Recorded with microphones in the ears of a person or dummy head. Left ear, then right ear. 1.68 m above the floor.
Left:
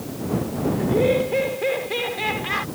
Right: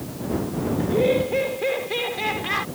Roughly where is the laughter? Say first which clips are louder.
Even; centre.